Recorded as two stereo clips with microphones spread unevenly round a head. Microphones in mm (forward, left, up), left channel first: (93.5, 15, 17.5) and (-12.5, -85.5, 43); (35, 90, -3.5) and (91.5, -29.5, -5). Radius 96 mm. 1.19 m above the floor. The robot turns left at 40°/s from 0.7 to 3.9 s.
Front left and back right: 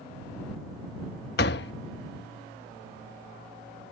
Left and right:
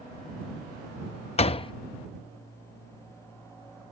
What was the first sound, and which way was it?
A door slam, 85° left.